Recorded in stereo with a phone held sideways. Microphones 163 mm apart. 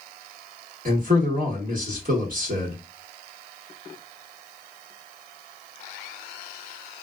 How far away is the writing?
No writing in this recording.